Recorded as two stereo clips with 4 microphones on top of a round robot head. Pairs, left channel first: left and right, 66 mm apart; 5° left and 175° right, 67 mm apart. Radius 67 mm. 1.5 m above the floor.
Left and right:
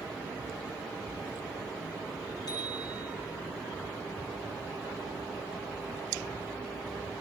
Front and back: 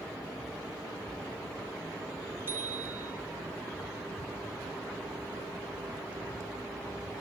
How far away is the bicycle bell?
About 8 m.